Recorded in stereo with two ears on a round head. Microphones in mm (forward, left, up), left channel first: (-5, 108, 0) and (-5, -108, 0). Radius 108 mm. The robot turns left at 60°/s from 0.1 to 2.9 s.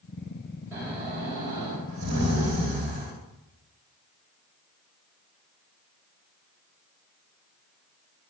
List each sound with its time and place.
0.7 s snoring: 10° right, 2.5 m; by 3.1 s 145° right, 2.5 m